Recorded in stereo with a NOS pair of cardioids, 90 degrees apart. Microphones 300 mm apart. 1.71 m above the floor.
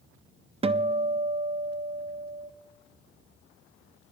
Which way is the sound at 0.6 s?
20° right.